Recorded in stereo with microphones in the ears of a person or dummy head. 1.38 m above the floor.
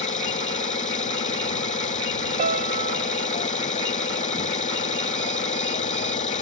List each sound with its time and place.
0.0 s an engine running: 35° left (ahead or behind)
2.4 s a piano: 45° right (ahead or behind)